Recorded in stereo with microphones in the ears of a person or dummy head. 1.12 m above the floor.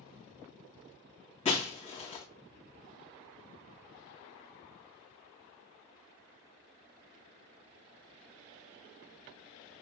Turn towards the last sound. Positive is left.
turn(degrees=40)  # may be behind; listen again after turning